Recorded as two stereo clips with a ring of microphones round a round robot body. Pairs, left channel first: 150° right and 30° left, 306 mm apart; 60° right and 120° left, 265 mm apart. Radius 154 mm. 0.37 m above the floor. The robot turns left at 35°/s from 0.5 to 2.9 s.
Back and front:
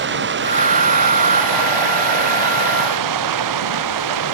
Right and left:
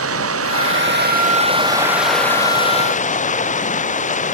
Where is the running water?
85° left; by 4.3 s straight ahead.